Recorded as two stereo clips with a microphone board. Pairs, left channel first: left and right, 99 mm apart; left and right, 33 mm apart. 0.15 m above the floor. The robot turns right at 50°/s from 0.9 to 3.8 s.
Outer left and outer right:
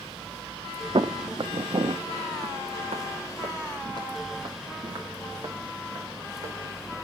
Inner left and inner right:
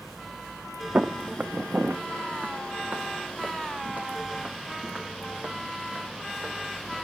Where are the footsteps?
55° right (ahead or behind), 0.7 m; by 6.9 s 50° right (ahead or behind), 4.5 m.